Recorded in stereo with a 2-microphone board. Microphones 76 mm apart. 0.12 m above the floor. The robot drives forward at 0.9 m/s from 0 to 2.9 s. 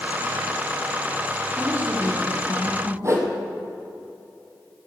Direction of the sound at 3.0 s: 40° right (ahead or behind).